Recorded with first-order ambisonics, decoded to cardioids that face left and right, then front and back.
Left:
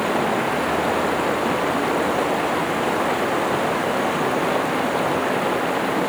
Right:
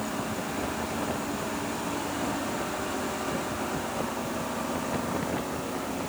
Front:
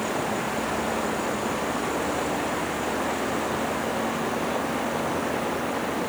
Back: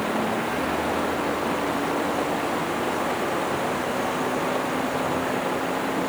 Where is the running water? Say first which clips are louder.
Left 12 dB, back 2 dB; 95° left.